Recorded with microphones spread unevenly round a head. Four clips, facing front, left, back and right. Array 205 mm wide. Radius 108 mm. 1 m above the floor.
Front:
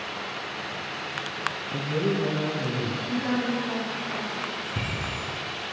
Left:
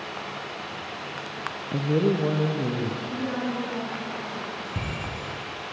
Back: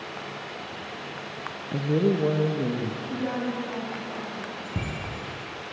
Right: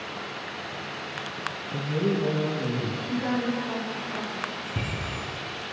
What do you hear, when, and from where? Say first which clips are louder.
1.7 s a woman speaking: left 4 dB, back 4 dB; straight behind, 0.8 m; by 3.0 s 170° left, 1.9 m
3.1 s a woman speaking: right 2 dB, front 3 dB; 110° right, 5 m
4.6 s a bicycle bell: even, front 1 dB; 170° right, 5 m